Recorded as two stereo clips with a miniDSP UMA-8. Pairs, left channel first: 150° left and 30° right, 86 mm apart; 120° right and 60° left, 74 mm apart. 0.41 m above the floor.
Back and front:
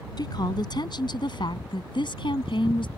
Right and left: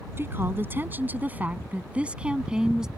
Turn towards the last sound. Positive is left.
turn(degrees=140)